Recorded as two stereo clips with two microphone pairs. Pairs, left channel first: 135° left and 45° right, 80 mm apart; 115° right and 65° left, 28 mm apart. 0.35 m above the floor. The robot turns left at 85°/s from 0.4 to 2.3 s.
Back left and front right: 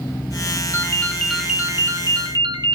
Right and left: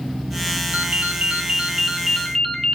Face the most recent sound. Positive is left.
turn(degrees=-45)